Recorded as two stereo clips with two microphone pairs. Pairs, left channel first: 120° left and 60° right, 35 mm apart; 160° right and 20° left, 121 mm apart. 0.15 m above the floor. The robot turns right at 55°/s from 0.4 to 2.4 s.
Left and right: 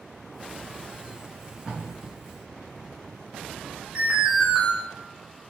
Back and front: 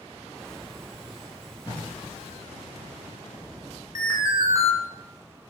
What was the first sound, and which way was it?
Tape being pulled, 135° right.